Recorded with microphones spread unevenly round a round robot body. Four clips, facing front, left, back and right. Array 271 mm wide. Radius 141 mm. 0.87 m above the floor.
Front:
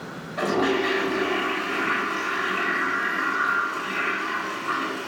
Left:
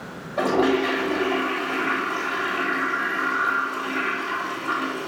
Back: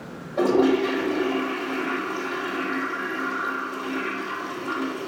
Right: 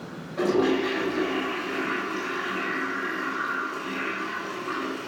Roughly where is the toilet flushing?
Behind.